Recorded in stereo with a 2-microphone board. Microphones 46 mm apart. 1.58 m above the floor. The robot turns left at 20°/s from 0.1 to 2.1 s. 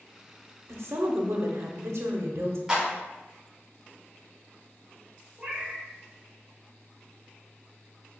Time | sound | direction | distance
0.7 | a woman speaking | 80° right | 0.6 m
2.7 | a clap | 15° right (ahead or behind) | 1.0 m
5.4 | a cat meowing | 20° right (ahead or behind) | 0.7 m